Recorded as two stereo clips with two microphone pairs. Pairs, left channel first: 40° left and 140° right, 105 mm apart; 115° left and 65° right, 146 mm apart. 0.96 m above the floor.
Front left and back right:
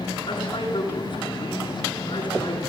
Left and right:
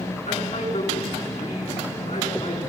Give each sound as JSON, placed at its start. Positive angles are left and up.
{"t": 0.3, "sound": "a man speaking", "azimuth_deg": 80, "distance_m": 9.0}